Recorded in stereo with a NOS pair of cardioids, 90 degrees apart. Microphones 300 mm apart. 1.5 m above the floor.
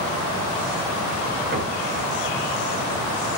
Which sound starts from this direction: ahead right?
Knocking, at 1.5 s.